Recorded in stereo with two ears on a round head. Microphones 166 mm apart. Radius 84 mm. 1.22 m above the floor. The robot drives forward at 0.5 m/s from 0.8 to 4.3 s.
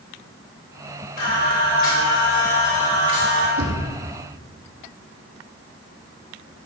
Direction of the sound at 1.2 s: 55° left (ahead or behind).